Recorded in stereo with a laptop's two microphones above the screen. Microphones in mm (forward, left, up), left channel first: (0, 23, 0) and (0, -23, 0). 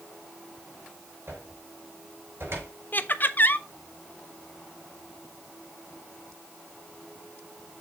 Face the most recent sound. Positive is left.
turn(degrees=45)  # may be behind; listen again after turning